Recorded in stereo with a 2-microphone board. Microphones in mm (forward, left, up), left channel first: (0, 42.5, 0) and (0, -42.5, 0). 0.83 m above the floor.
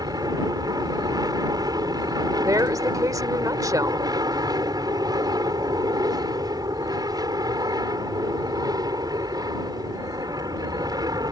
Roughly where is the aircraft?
Right.